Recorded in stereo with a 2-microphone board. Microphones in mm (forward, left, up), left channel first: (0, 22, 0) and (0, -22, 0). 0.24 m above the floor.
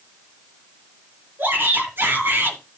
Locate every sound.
1.4 s a shout: 50° right (ahead or behind), 4.5 m